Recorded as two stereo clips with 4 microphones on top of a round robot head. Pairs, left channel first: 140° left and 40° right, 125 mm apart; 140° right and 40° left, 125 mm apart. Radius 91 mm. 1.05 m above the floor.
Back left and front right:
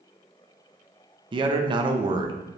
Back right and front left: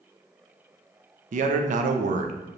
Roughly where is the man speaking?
Ahead.